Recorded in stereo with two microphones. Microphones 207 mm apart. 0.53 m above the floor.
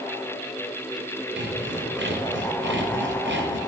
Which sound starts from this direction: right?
Sawing, at 1.4 s.